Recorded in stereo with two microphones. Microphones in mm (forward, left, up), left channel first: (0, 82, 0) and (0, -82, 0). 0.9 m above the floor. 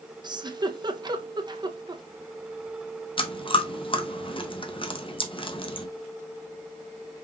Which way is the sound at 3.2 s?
35° left (ahead or behind).